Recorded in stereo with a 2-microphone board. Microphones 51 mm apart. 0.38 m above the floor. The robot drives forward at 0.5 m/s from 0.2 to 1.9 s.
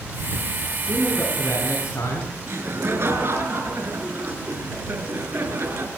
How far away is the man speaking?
About 5 m.